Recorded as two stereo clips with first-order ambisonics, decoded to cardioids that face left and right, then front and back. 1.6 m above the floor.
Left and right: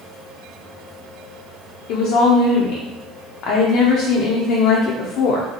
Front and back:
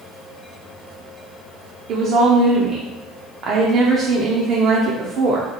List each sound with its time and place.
1.9 s a woman speaking: 130° left, 0.5 m